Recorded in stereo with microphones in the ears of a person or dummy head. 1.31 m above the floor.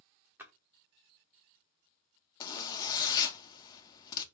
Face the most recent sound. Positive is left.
turn(degrees=20)  # may be behind; listen again after turning